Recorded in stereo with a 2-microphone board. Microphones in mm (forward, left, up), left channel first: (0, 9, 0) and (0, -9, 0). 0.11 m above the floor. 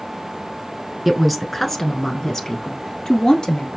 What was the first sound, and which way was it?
A woman speaking, 10° right (ahead or behind).